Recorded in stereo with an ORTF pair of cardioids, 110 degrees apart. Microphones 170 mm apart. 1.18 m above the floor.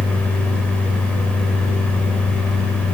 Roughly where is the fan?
Ahead.